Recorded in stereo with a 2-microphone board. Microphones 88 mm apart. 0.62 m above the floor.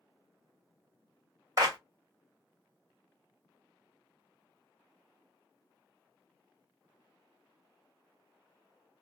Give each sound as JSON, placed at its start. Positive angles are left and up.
{"t": 1.6, "sound": "a clap", "side_deg": -40, "distance_m": 1.4}